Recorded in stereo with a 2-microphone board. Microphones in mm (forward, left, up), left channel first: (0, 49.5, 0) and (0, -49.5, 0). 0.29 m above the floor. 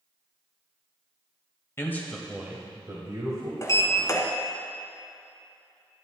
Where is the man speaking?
25° left (ahead or behind), 1.2 m; by 3.5 s 50° right (ahead or behind), 2.0 m.